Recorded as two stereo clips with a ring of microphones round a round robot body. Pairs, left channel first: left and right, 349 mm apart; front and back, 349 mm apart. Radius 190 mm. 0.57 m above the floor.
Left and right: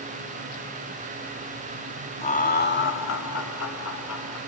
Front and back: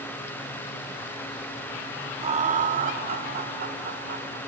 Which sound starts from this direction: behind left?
Laughter, at 2.2 s.